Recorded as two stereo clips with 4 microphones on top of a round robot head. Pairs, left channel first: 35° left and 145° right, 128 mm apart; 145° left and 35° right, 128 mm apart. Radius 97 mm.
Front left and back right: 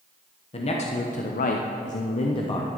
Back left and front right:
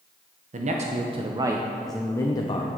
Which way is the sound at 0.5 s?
5° right.